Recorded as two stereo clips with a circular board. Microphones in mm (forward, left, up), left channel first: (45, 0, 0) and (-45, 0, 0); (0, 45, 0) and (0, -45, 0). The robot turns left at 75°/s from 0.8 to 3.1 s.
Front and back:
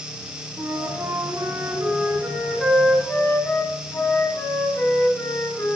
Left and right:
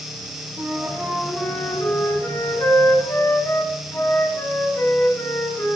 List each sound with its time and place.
0.6 s a flute: 145° right, 1.6 m; by 5.8 s 45° left, 1.6 m